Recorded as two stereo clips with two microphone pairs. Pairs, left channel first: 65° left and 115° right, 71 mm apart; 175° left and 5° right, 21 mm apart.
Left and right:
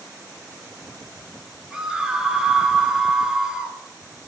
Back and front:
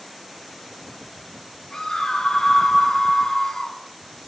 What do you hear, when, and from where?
1.7 s a scream: 160° left, 1.7 m